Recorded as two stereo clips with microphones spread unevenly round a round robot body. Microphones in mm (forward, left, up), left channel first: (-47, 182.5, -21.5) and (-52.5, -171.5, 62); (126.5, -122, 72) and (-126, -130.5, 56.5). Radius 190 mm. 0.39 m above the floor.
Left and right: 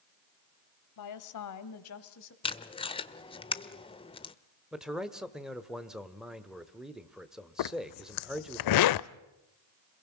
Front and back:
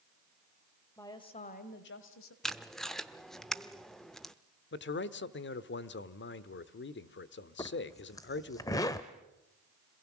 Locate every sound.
1.0 s a woman speaking: 85° left, 1.8 m; by 2.3 s 40° left, 2 m
2.4 s tape being pulled: 95° left, 0.8 m
4.7 s a man speaking: 15° left, 1.1 m
7.6 s a zipper: 80° left, 0.5 m